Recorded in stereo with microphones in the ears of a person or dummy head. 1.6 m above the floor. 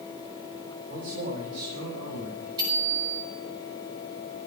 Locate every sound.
0.9 s a man speaking: 55° right (ahead or behind), 5 m; by 2.5 s 65° right (ahead or behind), 7 m
2.6 s a bicycle bell: 20° right (ahead or behind), 7 m